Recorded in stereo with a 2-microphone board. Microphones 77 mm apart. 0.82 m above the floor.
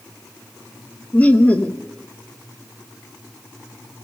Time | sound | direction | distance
1.1 | laughter | 20° left (ahead or behind) | 1.0 m